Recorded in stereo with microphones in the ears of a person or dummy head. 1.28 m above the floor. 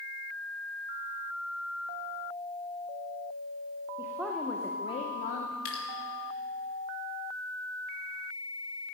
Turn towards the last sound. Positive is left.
turn(degrees=55)  # may be behind; listen again after turning